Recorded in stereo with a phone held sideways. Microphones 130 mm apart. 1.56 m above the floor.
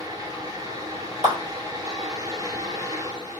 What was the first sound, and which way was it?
A fan, 25° right (ahead or behind).